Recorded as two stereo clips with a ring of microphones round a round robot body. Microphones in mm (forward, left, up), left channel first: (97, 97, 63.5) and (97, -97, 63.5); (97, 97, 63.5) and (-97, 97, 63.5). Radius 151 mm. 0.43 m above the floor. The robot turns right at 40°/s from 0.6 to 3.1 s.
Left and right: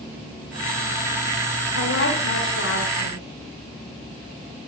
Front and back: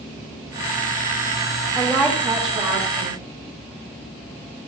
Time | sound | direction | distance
1.8 | a woman speaking | 90° left | 3 m